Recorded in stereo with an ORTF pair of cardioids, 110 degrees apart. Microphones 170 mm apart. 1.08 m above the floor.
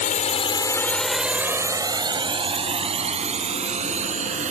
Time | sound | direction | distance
0.0 | a drone | 55° left | ?